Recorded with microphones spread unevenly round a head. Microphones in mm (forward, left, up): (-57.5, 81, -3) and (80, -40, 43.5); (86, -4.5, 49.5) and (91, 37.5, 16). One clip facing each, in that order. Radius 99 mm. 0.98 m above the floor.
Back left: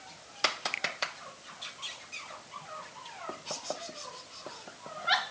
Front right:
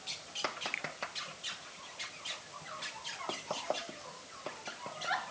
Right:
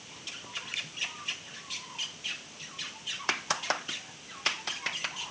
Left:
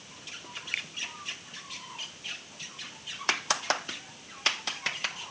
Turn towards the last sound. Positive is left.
turn(degrees=100)